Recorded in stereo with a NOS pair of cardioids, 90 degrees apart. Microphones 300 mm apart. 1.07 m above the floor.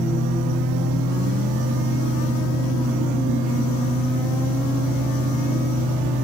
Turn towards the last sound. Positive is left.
turn(degrees=-70)